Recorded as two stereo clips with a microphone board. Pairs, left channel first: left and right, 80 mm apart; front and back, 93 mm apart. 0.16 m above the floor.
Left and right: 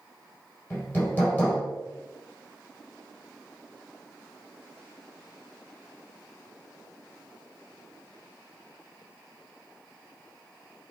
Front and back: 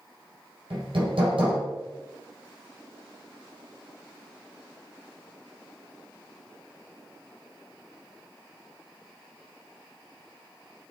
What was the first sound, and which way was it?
Hammering, 155° left.